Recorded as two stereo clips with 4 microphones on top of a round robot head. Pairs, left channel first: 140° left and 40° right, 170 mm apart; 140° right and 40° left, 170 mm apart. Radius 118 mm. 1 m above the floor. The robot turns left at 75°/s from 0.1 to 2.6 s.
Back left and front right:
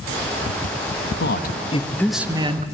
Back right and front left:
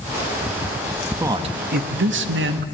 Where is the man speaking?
120° left, 1.2 m; by 2.6 s 15° left, 1.2 m.